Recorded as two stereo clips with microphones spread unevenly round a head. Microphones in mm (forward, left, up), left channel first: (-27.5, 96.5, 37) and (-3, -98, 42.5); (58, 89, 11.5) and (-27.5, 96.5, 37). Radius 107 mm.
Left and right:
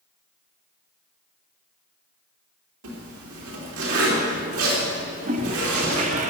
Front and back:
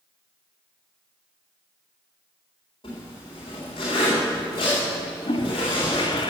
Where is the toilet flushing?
50° right, 0.8 m.